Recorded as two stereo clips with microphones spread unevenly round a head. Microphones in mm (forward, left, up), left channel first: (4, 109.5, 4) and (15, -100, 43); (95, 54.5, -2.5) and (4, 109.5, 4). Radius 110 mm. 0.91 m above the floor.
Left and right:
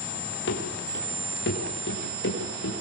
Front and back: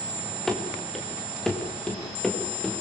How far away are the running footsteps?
About 6.5 m.